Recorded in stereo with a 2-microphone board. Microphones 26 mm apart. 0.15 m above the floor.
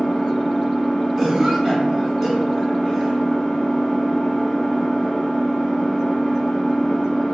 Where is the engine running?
15° left (ahead or behind), 1.2 m.